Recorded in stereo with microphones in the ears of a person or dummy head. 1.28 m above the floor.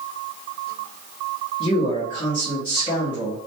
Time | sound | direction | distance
1.6 | a man speaking | 25° left (ahead or behind) | 0.8 m